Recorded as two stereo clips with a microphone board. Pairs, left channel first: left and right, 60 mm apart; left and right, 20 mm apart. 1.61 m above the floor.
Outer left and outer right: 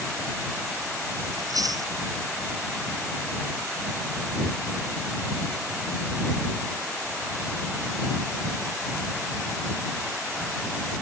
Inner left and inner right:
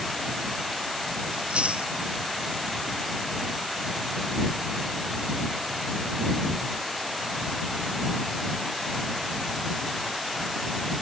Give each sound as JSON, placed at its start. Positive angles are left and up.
{"t": 1.3, "sound": "chewing", "side_deg": -80}